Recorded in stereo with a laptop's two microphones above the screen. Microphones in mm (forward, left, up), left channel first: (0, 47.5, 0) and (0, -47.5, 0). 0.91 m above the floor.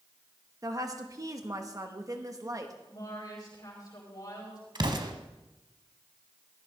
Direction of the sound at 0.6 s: 35° right (ahead or behind).